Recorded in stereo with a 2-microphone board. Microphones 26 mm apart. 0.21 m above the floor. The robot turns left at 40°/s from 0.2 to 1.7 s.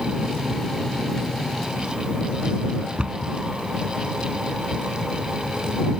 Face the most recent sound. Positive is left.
turn(degrees=-45)  # may be behind; listen again after turning